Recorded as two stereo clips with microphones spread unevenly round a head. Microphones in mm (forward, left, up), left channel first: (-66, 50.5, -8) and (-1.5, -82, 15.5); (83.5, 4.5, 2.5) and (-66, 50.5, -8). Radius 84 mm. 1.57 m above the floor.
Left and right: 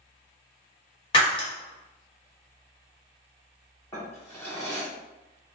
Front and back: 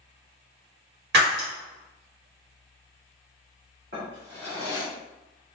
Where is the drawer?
165° right, 1.9 m.